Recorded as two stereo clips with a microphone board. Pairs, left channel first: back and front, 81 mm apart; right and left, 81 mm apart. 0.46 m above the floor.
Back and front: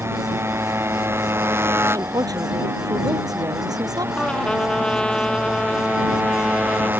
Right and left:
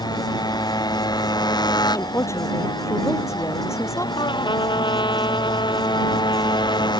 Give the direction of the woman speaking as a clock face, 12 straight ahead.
1 o'clock.